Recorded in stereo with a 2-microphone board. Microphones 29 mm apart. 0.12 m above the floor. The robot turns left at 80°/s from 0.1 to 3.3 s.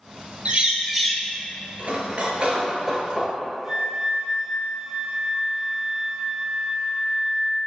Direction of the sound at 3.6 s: Centre (ahead or behind).